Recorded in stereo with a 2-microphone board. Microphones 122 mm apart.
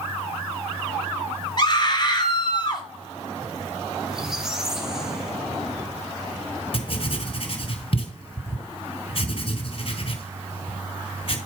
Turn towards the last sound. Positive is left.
turn(degrees=50)  # may be behind; listen again after turning